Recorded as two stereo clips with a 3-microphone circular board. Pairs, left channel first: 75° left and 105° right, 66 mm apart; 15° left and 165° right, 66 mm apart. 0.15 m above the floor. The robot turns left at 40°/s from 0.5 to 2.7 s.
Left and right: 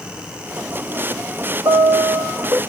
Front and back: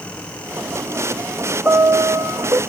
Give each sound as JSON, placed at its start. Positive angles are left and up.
{"t": 1.6, "sound": "a piano", "azimuth_deg": -105, "distance_m": 1.8}